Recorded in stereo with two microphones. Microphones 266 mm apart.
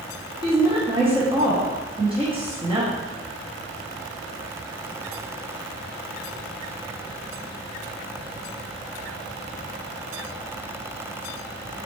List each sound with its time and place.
0.4 s a woman speaking: 20° right (ahead or behind), 0.8 m